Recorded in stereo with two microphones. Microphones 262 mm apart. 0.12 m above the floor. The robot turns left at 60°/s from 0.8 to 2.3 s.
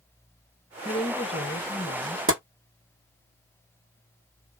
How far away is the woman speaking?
About 1.1 m.